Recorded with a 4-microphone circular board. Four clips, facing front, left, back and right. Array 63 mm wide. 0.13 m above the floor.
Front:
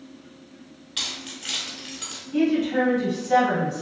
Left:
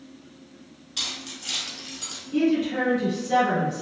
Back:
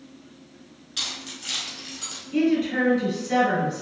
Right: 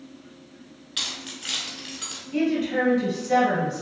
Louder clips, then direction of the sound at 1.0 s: Right 1 dB, front 1 dB; 75° right.